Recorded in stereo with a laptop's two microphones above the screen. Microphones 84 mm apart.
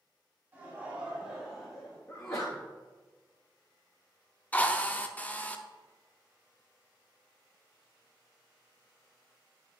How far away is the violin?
I don't hear a violin.